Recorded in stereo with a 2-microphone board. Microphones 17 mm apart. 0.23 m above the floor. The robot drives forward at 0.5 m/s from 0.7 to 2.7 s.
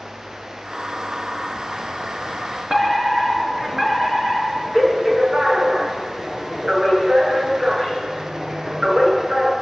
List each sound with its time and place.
2.7 s a fire alarm: 40° right (ahead or behind), 5.5 m